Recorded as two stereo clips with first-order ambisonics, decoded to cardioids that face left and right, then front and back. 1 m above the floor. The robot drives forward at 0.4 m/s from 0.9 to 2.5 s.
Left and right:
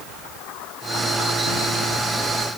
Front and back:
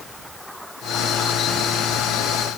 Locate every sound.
Only background noise.